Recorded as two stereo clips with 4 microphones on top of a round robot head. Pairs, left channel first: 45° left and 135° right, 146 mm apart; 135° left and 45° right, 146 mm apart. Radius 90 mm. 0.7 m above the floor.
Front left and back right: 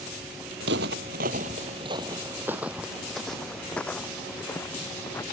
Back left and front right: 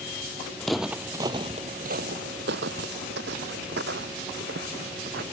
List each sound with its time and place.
0.6 s footsteps: 140° right; by 5.2 s 30° right